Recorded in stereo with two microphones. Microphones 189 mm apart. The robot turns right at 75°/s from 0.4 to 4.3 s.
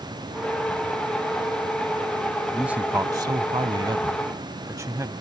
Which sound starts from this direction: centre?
A man speaking, at 2.5 s.